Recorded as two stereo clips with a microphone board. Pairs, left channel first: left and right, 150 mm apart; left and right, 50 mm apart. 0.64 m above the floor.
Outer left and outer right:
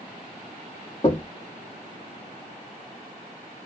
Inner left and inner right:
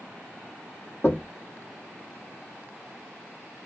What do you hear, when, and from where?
1.0 s knocking: 40° left (ahead or behind), 1.0 m